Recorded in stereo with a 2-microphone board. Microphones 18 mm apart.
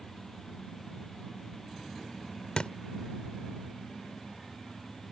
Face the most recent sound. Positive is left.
turn(degrees=80)